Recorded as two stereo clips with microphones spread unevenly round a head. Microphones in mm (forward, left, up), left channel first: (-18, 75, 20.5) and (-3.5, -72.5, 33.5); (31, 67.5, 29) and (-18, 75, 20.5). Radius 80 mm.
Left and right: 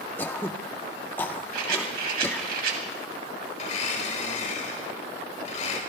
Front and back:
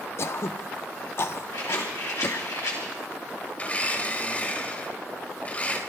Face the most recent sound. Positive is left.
turn(degrees=50)